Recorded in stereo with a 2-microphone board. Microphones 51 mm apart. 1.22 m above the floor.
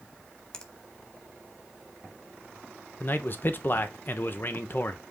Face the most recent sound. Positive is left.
turn(degrees=45)  # may be behind; listen again after turning